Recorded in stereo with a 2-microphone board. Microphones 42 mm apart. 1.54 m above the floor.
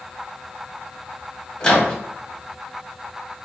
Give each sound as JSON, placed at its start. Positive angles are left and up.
{"t": 1.6, "sound": "a microwave", "side_deg": 20, "distance_m": 0.8}